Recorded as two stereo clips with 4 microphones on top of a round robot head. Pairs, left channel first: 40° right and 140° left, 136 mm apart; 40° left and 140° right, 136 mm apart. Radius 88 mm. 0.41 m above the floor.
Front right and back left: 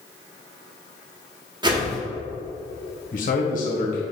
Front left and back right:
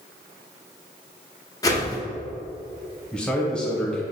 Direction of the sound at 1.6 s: 95° left.